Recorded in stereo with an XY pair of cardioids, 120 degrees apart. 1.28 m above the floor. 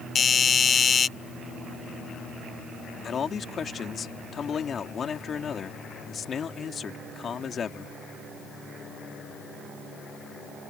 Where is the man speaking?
40° left.